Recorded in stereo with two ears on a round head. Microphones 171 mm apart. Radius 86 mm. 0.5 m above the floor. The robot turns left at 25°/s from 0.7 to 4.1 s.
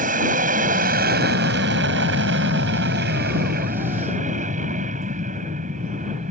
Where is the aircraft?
45° right; by 6.3 s 130° right.